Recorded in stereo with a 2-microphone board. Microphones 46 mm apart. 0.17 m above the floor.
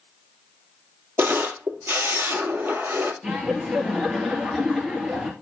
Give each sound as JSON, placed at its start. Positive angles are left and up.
{"t": 1.2, "sound": "a camera shutter", "side_deg": -60, "distance_m": 1.9}
{"t": 3.2, "sound": "laughter", "side_deg": -20, "distance_m": 3.0}